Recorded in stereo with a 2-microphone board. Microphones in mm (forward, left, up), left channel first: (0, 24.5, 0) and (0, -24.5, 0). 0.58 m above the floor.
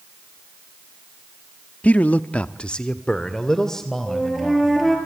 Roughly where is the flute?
Centre.